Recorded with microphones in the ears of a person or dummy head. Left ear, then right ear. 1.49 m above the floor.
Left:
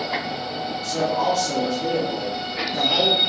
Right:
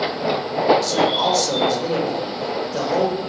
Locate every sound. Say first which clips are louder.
0.8 s a man speaking: right 3 dB; 65° right (ahead or behind), 1.5 m